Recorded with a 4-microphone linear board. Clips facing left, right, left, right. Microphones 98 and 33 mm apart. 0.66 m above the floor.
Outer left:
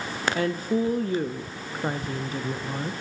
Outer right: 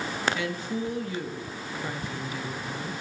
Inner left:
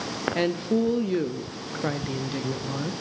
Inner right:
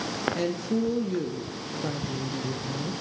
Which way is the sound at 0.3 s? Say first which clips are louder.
Outer left 6 dB, inner left 7 dB; 40° left (ahead or behind).